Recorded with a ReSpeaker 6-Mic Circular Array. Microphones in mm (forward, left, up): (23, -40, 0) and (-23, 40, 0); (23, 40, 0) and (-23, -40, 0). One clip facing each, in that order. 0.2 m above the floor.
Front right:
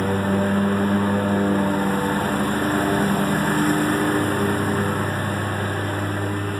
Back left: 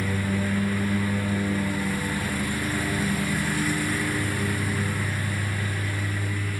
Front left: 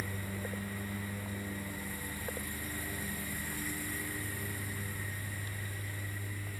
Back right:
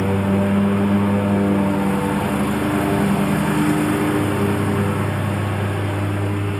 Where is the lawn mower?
105° right.